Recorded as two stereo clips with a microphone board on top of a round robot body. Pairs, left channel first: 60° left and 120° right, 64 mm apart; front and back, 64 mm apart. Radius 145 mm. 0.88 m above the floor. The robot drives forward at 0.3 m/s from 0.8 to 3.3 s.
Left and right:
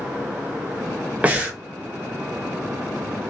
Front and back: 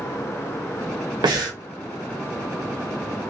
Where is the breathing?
170° left, 0.6 m.